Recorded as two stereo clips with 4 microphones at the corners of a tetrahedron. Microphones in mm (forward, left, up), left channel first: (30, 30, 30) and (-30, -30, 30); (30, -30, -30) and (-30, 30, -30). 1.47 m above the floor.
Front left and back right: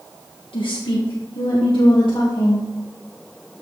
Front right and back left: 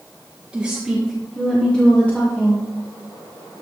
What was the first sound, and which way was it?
A woman speaking, 60° left.